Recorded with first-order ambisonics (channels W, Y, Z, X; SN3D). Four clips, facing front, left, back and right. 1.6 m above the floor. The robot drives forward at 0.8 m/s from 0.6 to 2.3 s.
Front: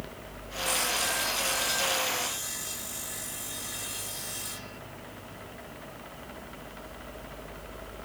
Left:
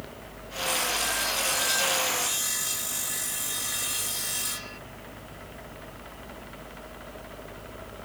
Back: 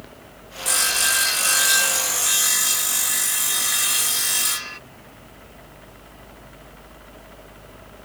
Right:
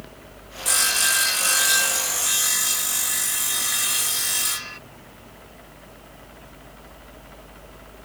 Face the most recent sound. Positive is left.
turn(degrees=-155)